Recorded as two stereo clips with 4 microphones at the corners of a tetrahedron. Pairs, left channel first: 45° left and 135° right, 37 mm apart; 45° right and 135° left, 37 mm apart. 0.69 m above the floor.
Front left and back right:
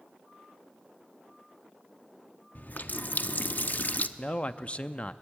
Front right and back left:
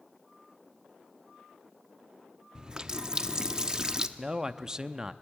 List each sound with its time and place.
2.5 s a running tap: 70° left, 0.7 m
4.2 s a man speaking: 75° left, 0.6 m